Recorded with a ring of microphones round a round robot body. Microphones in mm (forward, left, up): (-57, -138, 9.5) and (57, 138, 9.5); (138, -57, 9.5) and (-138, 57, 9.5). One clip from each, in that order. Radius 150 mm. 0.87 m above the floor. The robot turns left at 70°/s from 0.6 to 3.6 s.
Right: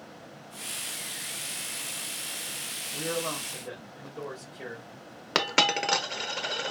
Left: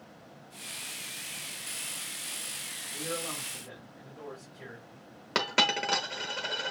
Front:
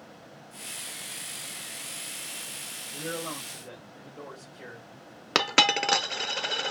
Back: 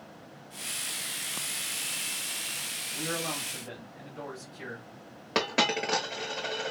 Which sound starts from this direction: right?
A man speaking, at 2.9 s.